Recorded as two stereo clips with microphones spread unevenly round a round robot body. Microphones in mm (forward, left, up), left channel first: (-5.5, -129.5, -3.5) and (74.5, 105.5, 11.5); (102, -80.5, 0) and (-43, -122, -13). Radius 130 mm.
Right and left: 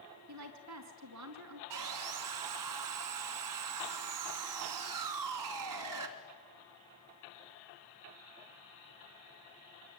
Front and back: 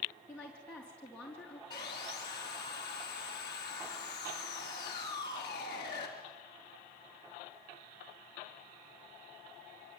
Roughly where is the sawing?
Left.